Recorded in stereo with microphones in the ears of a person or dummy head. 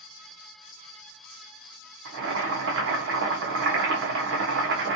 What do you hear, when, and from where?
2.0 s boiling: 75° right (ahead or behind), 1.4 m